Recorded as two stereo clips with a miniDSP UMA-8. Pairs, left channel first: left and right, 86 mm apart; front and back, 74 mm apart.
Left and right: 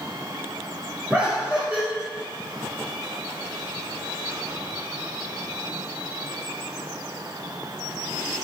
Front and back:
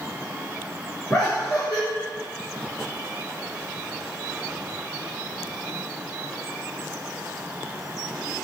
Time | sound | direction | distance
1.1 | laughter | 45° right | 1.8 m